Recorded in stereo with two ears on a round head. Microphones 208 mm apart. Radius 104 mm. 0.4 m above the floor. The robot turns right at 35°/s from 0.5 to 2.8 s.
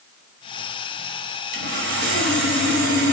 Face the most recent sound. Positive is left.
turn(degrees=-65)